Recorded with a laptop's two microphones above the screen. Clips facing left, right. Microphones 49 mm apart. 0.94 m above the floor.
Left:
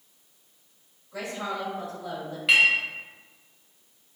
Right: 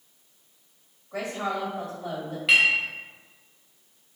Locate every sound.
1.1 s a woman speaking: 70° right (ahead or behind), 1.8 m
2.5 s a clink: centre (ahead or behind), 0.7 m